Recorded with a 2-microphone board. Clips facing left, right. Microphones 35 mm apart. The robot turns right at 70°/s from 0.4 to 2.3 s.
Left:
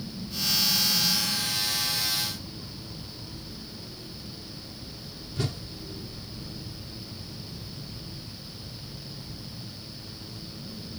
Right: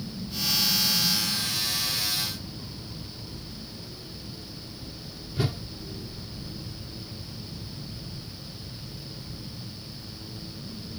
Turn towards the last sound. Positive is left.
turn(degrees=-10)  # may be behind; listen again after turning